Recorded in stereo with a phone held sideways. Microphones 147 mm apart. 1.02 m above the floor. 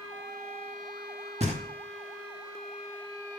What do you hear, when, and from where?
1.4 s knocking: 40° right (ahead or behind), 0.7 m